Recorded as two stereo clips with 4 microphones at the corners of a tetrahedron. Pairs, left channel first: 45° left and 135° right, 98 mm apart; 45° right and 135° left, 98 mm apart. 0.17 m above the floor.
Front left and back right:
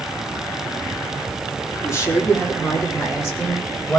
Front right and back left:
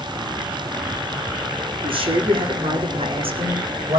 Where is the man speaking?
105° left, 6.5 m; by 4.0 s 115° left, 7 m.